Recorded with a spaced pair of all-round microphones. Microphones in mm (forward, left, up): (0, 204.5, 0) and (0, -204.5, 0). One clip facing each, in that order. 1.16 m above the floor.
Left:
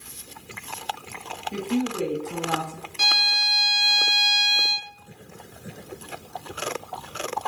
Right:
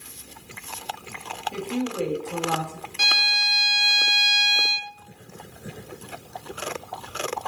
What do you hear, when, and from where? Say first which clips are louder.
1.5 s a woman speaking: left 2 dB; 35° left (ahead or behind), 1.9 m
3.0 s a violin: left 1 dB; 5° left (ahead or behind), 0.6 m